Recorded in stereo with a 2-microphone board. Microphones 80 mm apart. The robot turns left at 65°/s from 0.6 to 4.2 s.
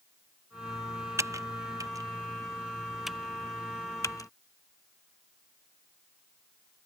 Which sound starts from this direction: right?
Typing on a keyboard, at 1.2 s.